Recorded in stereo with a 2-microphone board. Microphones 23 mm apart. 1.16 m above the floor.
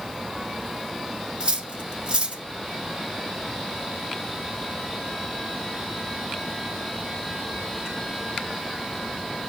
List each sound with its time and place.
1.4 s cutlery clinking: 50° right (ahead or behind), 1.3 m